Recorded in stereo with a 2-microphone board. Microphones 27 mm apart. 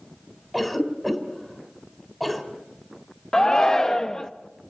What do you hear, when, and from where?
0.5 s a cough: 5° left (ahead or behind), 3.5 m
3.3 s a shout: 20° left (ahead or behind), 0.6 m